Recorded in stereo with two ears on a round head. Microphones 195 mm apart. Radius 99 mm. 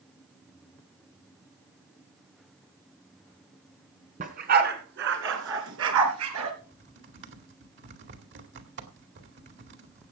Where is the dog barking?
35° right (ahead or behind), 2.5 m; by 6.5 s 75° right (ahead or behind), 3.5 m.